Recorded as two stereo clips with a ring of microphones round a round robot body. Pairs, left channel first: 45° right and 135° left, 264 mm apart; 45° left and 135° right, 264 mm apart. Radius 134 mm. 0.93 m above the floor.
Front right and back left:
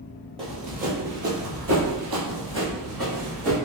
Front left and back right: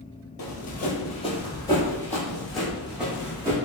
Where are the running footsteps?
75° left, 1.1 m; by 3.6 s 145° left, 2 m.